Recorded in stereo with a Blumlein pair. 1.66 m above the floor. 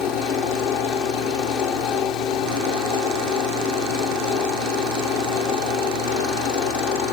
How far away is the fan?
About 2.0 m.